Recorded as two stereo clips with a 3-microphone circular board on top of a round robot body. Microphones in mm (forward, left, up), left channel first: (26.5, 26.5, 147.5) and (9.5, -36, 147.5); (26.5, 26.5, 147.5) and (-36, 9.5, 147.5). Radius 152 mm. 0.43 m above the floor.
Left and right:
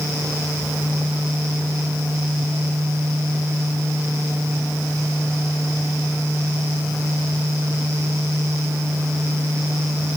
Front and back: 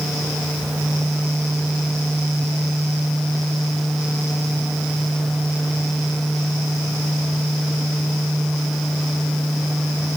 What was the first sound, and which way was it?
Only background noise.